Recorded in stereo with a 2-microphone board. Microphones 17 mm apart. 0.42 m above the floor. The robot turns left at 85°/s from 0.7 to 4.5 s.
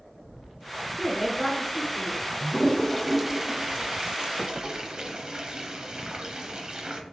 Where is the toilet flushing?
50° left (ahead or behind), 0.7 m; by 7.0 s 55° right (ahead or behind), 0.7 m.